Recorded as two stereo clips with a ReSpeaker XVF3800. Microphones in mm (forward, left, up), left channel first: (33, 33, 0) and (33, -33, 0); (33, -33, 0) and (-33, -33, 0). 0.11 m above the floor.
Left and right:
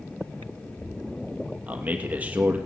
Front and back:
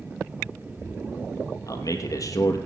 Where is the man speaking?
25° right, 3 m.